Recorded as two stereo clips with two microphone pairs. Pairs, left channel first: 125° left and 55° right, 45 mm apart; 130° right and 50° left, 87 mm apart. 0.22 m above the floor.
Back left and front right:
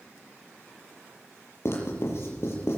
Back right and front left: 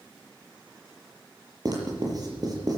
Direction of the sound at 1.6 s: 95° left.